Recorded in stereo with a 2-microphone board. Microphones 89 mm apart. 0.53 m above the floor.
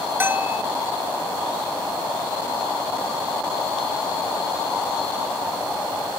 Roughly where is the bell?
Right.